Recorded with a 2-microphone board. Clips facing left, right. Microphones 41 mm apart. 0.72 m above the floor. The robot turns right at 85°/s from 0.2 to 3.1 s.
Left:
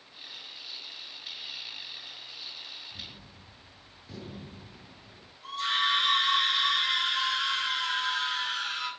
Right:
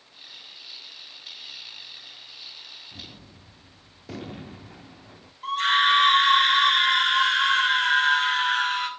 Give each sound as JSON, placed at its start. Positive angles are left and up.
{"t": 2.9, "sound": "a gunshot", "side_deg": -75, "distance_m": 1.1}
{"t": 5.4, "sound": "a scream", "side_deg": -55, "distance_m": 2.5}